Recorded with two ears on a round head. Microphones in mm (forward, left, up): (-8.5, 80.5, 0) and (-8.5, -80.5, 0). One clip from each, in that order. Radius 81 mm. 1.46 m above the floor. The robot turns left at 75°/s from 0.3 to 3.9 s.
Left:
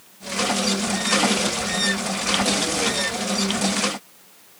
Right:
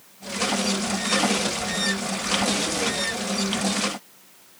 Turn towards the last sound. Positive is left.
No sound to turn to.